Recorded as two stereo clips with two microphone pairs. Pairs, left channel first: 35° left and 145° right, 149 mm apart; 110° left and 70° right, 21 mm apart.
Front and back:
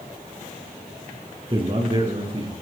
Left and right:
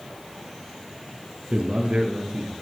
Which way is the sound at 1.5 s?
95° right.